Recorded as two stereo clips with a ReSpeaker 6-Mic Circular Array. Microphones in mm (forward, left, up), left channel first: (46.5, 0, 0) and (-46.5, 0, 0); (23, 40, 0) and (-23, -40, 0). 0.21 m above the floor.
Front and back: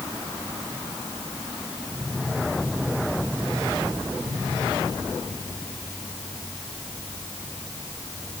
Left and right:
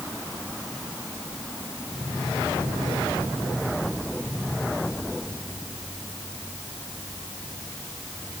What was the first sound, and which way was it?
Only background noise.